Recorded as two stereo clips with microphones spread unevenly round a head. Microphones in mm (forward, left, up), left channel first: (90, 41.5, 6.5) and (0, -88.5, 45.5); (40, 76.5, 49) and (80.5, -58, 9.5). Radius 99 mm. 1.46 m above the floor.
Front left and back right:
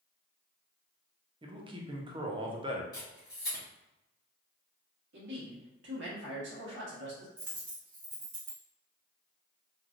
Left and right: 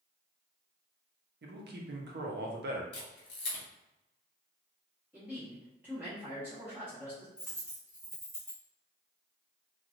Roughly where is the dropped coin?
Behind.